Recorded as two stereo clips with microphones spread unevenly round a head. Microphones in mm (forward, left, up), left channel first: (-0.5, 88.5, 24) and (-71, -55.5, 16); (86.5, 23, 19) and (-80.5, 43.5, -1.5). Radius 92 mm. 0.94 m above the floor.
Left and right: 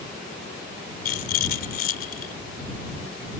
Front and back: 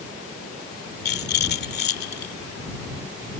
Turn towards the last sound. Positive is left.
turn(degrees=20)